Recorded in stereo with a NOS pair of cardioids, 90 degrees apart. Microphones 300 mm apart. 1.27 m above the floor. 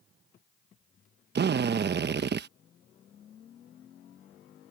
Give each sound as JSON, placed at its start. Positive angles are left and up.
{"t": 1.4, "sound": "a drill", "azimuth_deg": -40}